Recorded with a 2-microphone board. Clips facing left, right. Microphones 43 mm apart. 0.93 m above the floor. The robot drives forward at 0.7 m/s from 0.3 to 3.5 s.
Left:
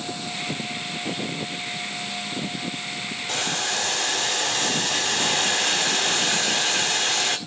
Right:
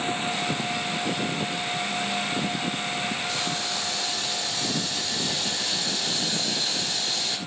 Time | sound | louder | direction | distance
3.3 | boiling | left 2 dB | 70° left (ahead or behind) | 1.9 m